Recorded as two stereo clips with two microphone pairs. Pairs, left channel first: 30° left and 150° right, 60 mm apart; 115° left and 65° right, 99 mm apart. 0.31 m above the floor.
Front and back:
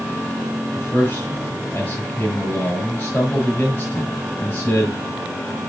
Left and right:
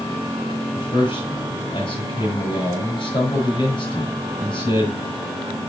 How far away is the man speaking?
About 5 m.